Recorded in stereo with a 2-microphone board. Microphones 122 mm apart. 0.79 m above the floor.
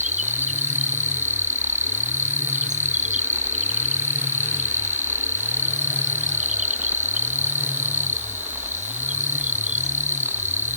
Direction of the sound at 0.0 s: 80° right.